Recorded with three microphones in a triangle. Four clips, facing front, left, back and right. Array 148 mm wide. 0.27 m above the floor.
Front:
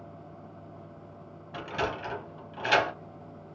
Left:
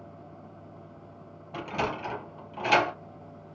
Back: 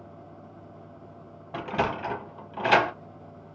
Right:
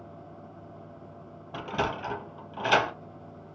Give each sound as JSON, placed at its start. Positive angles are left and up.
{"t": 1.5, "sound": "a sliding door", "azimuth_deg": -170, "distance_m": 0.7}